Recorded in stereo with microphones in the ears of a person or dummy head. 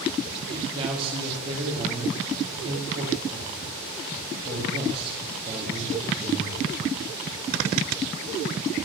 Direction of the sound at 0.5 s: 35° right (ahead or behind).